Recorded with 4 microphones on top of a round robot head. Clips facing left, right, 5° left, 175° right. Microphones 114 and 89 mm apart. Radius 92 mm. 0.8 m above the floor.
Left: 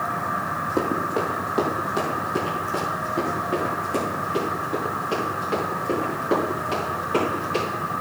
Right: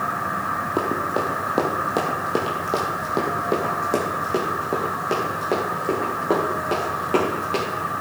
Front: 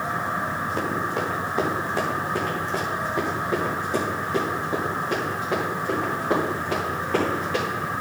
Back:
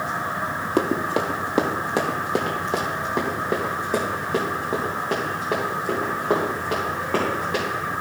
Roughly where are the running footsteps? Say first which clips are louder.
Even, back 7 dB; behind.